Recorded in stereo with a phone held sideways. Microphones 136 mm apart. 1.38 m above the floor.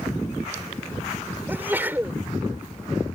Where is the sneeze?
15° right (ahead or behind).